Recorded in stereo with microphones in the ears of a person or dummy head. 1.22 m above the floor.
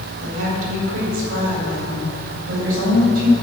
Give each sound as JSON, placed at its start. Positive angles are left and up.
{"t": 0.2, "sound": "a woman speaking", "side_deg": -80, "distance_m": 3.5}